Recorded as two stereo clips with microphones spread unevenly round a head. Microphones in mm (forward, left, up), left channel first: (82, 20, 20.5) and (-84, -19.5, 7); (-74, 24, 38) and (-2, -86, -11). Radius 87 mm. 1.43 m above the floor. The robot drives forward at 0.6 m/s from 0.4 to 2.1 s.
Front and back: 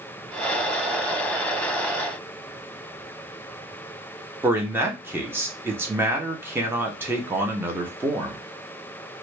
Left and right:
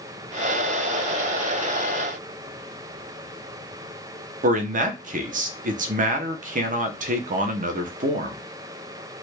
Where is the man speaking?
85° right, 0.8 m.